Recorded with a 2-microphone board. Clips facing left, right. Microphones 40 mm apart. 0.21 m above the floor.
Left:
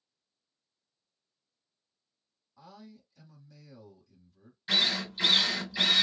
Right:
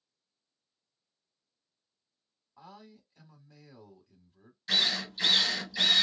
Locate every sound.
2.6 s a man speaking: 35° right (ahead or behind), 1.1 m
4.7 s a drill: 15° left (ahead or behind), 1.1 m